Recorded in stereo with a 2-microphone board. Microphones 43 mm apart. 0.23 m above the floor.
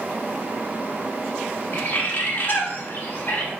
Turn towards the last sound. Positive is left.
turn(degrees=50)  # may be behind; listen again after turning